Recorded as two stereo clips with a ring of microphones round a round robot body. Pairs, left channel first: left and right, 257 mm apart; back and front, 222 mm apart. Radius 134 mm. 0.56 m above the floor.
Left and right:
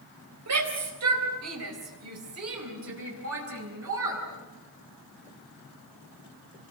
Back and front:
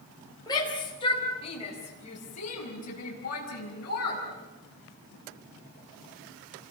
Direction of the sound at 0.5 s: 105° right.